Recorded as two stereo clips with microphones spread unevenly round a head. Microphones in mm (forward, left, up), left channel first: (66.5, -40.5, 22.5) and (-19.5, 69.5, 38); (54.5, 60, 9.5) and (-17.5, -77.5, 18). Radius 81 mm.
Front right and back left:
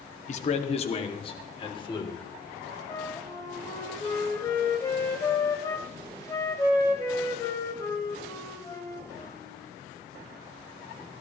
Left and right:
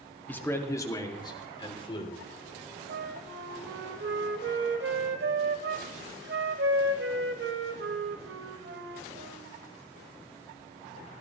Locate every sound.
0.3 s a man speaking: 15° right, 2 m; by 2.2 s 5° left, 3.5 m
2.9 s a flute: 125° right, 1.8 m